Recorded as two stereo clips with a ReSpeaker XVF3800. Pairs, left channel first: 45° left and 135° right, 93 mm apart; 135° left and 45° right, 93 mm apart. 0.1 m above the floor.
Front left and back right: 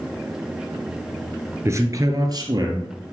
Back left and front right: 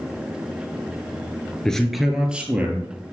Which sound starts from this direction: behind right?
A man speaking, at 1.6 s.